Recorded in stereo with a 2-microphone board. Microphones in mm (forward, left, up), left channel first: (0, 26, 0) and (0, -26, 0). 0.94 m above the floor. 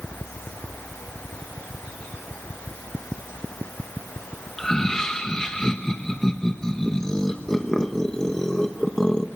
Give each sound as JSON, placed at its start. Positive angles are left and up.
{"t": 4.6, "sound": "laughter", "side_deg": 10, "distance_m": 1.1}